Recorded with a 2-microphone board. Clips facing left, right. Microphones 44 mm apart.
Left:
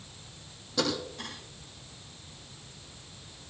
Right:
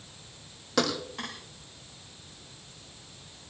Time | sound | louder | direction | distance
0.8 | a thud | right 3 dB | 85° right | 7 m